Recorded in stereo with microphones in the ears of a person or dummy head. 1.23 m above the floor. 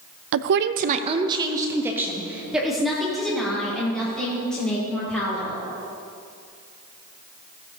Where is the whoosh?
I don't hear a whoosh.